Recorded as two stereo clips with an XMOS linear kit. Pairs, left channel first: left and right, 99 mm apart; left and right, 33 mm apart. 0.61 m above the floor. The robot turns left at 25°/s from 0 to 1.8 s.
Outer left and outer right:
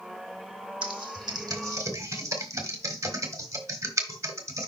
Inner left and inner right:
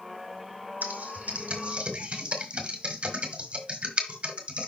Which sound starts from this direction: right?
Typing on a keyboard, at 0.8 s.